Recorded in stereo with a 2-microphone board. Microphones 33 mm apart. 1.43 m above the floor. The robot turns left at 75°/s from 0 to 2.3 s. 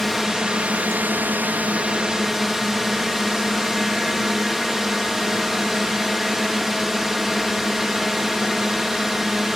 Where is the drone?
5° left; by 9.6 s 165° right.